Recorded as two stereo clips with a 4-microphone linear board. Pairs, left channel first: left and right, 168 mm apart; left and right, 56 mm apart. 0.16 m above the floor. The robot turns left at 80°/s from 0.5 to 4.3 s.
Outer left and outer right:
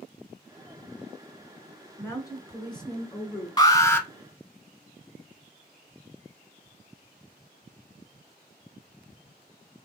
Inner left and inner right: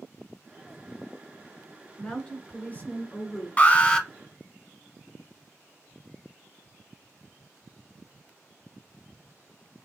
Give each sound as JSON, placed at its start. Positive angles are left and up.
{"t": 2.0, "sound": "a woman speaking", "side_deg": 10, "distance_m": 1.4}
{"t": 3.6, "sound": "an alarm", "side_deg": 25, "distance_m": 0.8}